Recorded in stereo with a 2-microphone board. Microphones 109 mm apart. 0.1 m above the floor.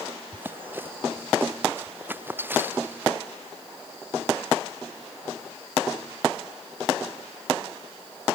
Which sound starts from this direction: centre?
Running footsteps, at 0.3 s.